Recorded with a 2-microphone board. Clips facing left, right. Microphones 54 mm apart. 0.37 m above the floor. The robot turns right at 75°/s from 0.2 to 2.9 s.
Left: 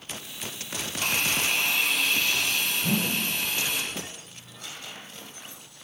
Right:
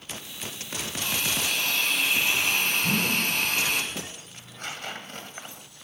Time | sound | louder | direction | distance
1.0 | a hiss | left 3 dB | 110° left | 4 m
2.8 | a whoosh | right 2 dB | 45° left (ahead or behind) | 7 m
4.3 | tearing paper | right 5 dB | 55° right (ahead or behind) | 2 m